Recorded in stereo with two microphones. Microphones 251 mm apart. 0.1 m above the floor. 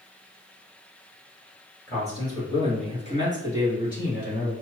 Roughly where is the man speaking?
Centre.